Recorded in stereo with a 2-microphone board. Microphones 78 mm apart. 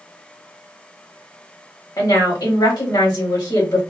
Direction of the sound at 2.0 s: 55° left (ahead or behind).